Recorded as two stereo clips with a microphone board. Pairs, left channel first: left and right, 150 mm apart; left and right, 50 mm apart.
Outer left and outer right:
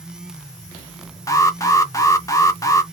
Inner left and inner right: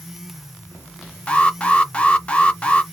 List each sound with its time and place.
1.3 s an alarm: 20° left (ahead or behind), 0.6 m